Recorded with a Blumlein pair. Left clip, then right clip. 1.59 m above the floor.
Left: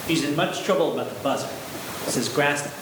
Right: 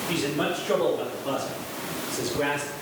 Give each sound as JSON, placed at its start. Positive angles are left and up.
{"t": 0.1, "sound": "a man speaking", "azimuth_deg": 30, "distance_m": 4.0}